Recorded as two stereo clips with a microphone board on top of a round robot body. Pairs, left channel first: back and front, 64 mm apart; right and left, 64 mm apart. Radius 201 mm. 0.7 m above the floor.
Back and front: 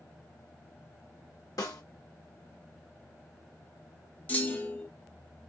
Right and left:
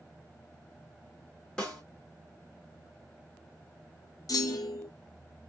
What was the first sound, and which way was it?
A snare drum, 170° right.